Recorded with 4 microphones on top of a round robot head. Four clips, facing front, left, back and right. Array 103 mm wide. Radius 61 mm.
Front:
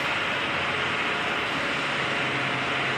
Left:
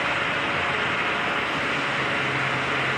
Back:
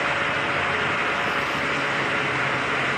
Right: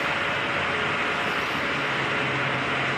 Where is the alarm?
I don't hear an alarm.